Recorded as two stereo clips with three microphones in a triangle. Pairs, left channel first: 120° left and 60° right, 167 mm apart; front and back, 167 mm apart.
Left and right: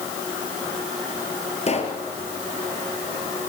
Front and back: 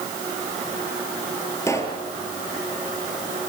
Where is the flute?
I don't hear a flute.